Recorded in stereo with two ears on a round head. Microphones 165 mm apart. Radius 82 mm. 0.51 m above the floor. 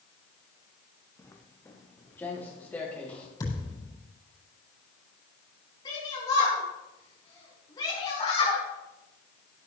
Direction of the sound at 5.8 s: 25° left (ahead or behind).